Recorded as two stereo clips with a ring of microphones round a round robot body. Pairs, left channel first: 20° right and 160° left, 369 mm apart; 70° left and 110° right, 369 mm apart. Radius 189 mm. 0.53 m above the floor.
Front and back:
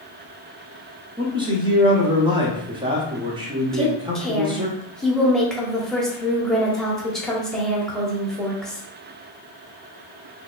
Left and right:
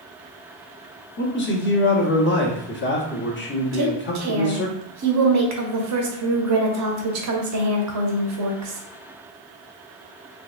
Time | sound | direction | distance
1.2 | a man speaking | 90° left | 1.0 m
3.7 | a woman speaking | 110° right | 1.0 m